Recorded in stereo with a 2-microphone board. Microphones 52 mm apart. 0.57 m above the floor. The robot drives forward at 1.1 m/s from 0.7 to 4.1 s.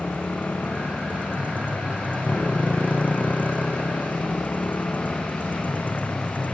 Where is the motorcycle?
25° left (ahead or behind); by 6.5 s 30° left (ahead or behind).